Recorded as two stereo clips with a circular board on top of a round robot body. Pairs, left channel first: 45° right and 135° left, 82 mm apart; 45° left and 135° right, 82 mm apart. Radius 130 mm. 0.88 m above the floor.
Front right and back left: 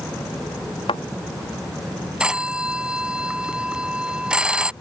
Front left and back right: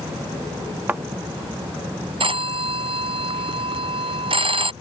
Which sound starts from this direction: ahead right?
A thud, at 0.9 s.